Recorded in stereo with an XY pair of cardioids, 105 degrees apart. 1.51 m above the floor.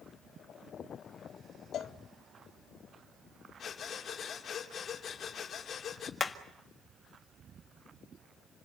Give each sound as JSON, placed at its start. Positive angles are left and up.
{"t": 1.7, "sound": "a cowbell", "azimuth_deg": 60, "distance_m": 0.8}
{"t": 3.6, "sound": "breathing", "azimuth_deg": 50, "distance_m": 2.5}
{"t": 6.2, "sound": "hammering", "azimuth_deg": 30, "distance_m": 1.7}